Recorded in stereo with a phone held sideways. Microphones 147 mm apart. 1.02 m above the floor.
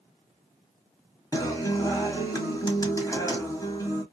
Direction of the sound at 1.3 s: 25° left (ahead or behind).